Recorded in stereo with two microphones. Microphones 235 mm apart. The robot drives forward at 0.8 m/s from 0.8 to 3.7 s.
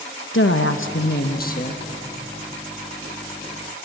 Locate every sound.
0.3 s a woman speaking: 60° left (ahead or behind), 0.9 m; by 1.8 s 30° left (ahead or behind), 1.5 m